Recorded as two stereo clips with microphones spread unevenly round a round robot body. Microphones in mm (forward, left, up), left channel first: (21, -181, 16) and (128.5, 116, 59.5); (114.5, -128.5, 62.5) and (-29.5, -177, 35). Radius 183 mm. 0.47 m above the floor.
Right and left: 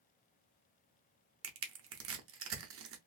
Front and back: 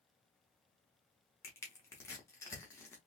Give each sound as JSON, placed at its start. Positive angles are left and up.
{"t": 1.4, "sound": "crushing", "azimuth_deg": 95, "distance_m": 0.6}